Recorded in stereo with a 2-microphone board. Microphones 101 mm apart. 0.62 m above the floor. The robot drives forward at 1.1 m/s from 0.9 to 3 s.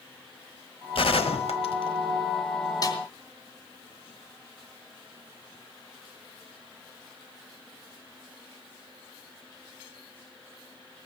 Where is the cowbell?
I don't hear a cowbell.